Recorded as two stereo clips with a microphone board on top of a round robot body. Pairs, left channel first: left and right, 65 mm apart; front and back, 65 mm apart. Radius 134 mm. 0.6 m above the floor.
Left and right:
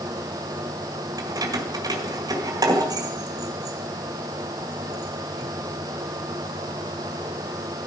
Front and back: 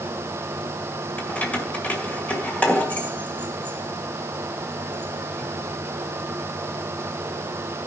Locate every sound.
1.2 s keys jangling: 70° right, 1.9 m